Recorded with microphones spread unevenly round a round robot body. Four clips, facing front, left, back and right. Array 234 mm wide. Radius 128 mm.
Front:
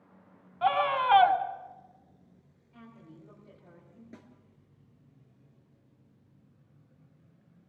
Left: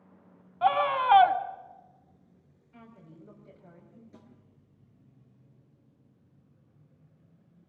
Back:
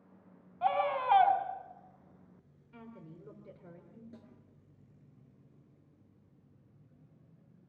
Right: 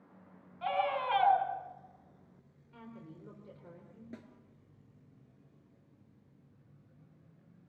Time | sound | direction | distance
0.6 | a scream | 45° left | 2.5 m
2.7 | a woman speaking | 170° right | 3.5 m
4.1 | a snare drum | 55° right | 4 m